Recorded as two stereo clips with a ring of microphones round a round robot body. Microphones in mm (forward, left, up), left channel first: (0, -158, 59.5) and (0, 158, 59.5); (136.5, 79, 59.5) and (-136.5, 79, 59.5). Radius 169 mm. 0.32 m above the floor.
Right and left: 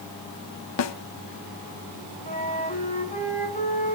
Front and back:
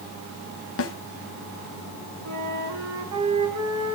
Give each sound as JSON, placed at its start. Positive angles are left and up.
{"t": 0.8, "sound": "a snare drum", "azimuth_deg": -50, "distance_m": 0.7}
{"t": 2.2, "sound": "a flute", "azimuth_deg": -155, "distance_m": 3.5}